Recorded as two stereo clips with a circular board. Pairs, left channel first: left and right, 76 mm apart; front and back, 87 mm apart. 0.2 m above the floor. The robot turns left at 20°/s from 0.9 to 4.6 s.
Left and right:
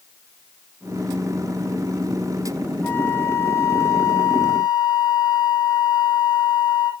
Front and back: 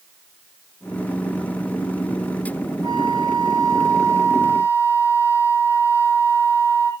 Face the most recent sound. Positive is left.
turn(degrees=120)